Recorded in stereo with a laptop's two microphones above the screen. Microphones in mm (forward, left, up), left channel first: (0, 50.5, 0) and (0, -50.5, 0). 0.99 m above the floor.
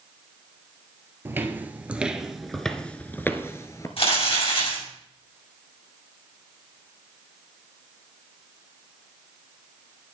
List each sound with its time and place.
1.2 s footsteps: 25° right (ahead or behind), 1.3 m; by 3.9 s 30° left (ahead or behind), 1.1 m
4.0 s crumpling: 70° left (ahead or behind), 7 m